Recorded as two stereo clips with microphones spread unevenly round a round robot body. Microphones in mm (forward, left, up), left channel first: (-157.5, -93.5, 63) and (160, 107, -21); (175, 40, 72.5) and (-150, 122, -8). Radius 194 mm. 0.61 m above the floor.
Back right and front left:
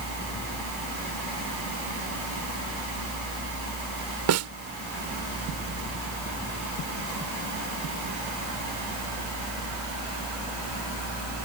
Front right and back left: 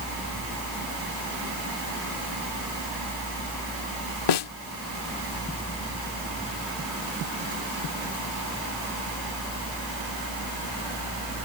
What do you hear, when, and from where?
4.3 s a snare drum: 10° right